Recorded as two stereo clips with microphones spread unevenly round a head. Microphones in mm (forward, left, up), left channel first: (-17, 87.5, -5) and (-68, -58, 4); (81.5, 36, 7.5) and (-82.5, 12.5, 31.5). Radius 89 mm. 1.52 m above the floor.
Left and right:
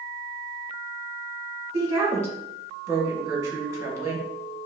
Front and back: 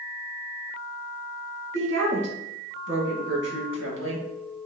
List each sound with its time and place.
1.7 s a woman speaking: straight behind, 1.9 m